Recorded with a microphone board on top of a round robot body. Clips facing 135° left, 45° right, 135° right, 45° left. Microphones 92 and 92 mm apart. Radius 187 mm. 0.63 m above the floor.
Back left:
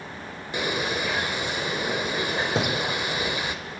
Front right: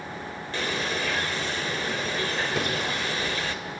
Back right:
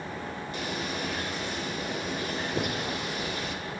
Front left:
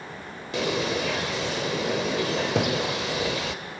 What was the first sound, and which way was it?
A bird, 60° left.